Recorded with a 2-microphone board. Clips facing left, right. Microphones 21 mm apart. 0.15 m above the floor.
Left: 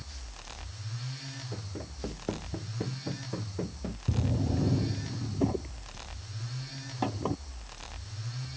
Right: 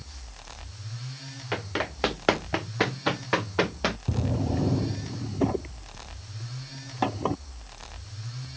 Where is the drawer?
25° right (ahead or behind).